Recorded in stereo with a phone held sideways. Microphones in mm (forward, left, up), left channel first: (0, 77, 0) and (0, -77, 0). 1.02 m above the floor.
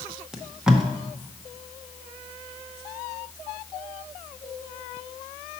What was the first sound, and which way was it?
Tape being pulled, 5° right (ahead or behind).